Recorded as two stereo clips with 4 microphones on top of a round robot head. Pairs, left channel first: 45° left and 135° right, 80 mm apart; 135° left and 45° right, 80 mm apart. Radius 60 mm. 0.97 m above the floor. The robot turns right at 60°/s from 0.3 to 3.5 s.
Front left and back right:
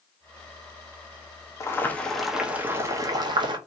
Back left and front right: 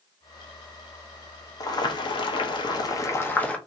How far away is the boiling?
About 0.8 m.